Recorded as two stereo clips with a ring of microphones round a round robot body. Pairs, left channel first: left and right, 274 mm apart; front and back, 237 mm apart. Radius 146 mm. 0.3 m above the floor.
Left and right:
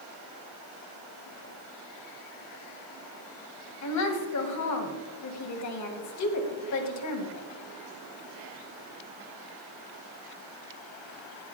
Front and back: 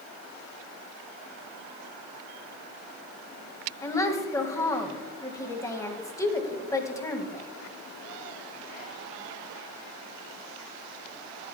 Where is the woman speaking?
75° left, 2 m.